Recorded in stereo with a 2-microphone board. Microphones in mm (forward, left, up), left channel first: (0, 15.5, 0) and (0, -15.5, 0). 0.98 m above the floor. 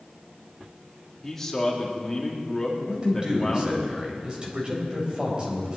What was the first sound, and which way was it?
A man speaking, 15° left (ahead or behind).